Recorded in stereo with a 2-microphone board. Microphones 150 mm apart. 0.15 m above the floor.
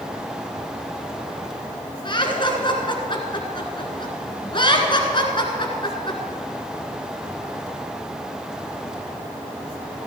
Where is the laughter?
35° left (ahead or behind), 1.6 m.